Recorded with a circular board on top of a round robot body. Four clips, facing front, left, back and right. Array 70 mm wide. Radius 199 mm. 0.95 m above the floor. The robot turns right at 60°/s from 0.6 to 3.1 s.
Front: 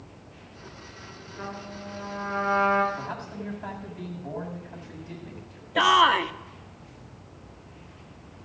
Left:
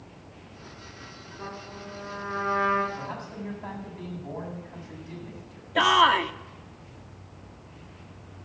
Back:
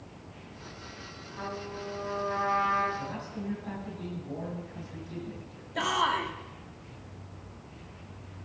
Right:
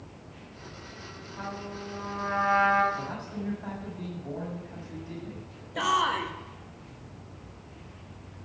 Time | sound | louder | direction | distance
1.4 | a trumpet | right 2 dB, back 1 dB | 135° right | 6 m
2.9 | a man speaking | right 1 dB, front 2 dB | 10° right | 6.5 m
5.8 | a shout | left 6 dB, front 9 dB | 40° left | 1.2 m